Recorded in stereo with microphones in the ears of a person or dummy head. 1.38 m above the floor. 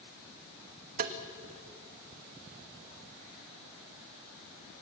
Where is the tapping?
45° right (ahead or behind), 1.3 m.